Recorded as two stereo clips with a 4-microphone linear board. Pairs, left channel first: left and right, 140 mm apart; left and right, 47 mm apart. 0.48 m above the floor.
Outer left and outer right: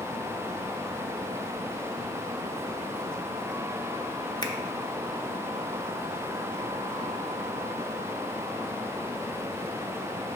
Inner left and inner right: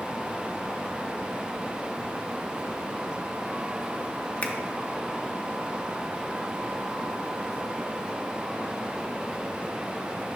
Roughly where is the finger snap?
Left.